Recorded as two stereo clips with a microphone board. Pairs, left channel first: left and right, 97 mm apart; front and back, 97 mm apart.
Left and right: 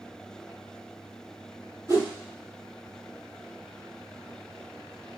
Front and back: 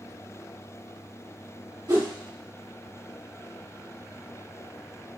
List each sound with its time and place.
1.9 s a whoosh: 140° right, 2.5 m